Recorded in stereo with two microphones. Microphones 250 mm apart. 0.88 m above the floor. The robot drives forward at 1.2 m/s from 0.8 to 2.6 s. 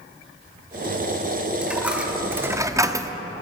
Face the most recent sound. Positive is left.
turn(degrees=-15)  # may be behind; listen again after turning